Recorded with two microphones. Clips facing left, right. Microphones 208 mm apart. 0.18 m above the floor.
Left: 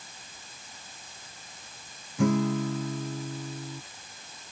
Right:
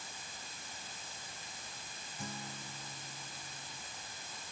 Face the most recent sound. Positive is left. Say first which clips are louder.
# left 23 dB
turn(degrees=75)  # may be behind; listen again after turning